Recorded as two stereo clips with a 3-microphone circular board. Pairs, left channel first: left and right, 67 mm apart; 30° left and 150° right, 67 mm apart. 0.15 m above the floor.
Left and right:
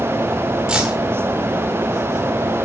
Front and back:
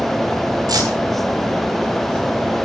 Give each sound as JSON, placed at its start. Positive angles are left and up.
{"t": 0.7, "sound": "keys jangling", "azimuth_deg": -170, "distance_m": 8.5}